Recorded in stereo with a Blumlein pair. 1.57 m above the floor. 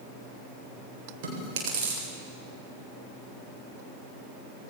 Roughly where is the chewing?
Ahead right.